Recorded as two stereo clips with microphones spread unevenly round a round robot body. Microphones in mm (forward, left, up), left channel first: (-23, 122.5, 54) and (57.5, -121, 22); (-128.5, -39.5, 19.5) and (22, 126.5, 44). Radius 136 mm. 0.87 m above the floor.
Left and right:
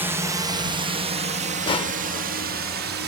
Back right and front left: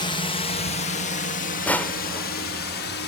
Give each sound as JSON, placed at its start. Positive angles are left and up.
{"t": 0.0, "sound": "a drone", "azimuth_deg": -125}
{"t": 1.7, "sound": "crushing", "azimuth_deg": 140}